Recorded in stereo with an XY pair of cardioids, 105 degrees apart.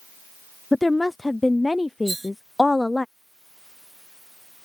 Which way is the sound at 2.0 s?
20° right.